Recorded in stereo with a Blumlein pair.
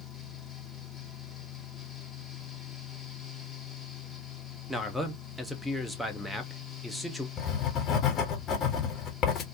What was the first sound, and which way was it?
A fan, 5° left.